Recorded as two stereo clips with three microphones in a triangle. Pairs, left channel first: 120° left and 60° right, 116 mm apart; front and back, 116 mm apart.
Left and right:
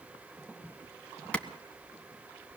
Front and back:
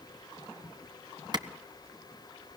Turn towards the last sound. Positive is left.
turn(degrees=-165)